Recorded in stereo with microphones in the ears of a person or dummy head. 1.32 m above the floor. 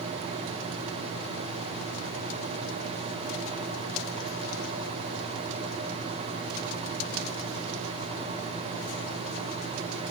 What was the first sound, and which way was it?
Only background noise.